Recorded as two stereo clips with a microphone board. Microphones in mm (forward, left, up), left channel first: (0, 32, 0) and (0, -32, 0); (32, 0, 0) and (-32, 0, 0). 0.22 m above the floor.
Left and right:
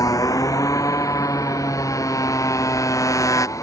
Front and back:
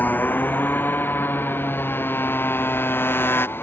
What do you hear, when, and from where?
0.0 s a motorcycle: 60° left; by 3.6 s 55° left